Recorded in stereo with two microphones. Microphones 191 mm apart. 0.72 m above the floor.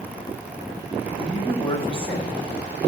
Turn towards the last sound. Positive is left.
turn(degrees=25)  # may be behind; listen again after turning